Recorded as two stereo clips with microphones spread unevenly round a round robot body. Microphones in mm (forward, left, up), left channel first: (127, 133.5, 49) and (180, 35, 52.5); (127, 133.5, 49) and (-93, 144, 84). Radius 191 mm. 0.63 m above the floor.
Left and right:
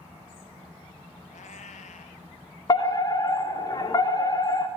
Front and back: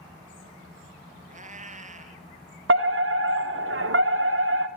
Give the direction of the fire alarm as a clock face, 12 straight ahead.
6 o'clock.